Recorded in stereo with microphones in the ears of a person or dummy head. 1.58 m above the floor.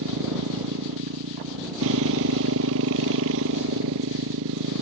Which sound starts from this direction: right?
A motorcycle, at 0.0 s.